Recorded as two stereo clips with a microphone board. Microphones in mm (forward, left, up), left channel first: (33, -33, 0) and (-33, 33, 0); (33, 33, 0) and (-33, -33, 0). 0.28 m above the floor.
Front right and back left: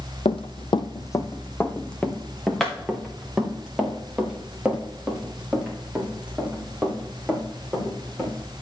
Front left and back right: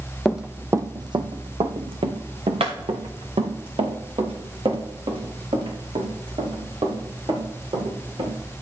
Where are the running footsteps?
40° right, 0.8 m; by 8.3 s 150° right, 6.5 m.